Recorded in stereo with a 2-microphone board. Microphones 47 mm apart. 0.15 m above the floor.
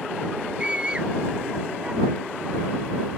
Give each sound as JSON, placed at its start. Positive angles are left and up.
{"t": 0.6, "sound": "a scream", "side_deg": -25}